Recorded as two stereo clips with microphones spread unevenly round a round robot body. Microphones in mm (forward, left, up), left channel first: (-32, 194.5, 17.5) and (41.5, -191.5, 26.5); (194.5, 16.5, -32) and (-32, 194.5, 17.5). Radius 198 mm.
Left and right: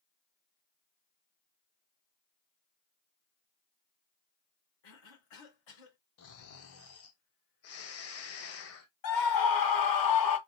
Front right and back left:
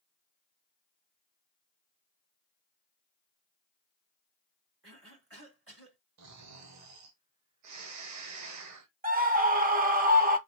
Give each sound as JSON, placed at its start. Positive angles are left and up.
{"t": 4.8, "sound": "a cough", "azimuth_deg": 100, "distance_m": 3.5}
{"t": 6.2, "sound": "snoring", "azimuth_deg": 140, "distance_m": 1.1}
{"t": 9.0, "sound": "a scream", "azimuth_deg": 80, "distance_m": 1.5}